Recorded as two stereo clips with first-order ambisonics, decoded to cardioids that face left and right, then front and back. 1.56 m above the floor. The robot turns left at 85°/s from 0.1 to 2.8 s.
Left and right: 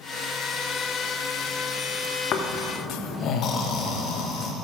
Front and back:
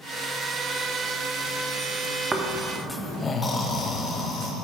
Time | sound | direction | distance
2.3 | snoring | 110° left | 0.9 m